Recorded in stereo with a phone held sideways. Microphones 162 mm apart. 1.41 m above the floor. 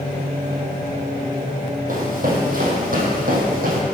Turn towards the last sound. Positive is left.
turn(degrees=-60)  # may be behind; listen again after turning